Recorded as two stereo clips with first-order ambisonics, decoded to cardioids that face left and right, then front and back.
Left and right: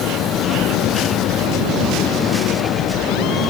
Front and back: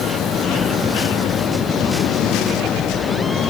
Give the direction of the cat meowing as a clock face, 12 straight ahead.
I don't hear a cat meowing.